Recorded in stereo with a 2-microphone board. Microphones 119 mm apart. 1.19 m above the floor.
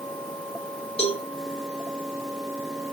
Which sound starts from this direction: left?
A cowbell, at 1.0 s.